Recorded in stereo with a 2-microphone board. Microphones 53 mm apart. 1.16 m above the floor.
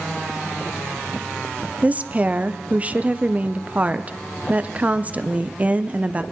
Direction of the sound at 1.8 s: 30° right (ahead or behind).